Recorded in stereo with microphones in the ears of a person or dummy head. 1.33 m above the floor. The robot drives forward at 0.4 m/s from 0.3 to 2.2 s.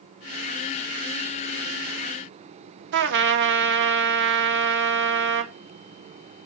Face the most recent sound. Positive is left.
turn(degrees=-60)  # may be behind; listen again after turning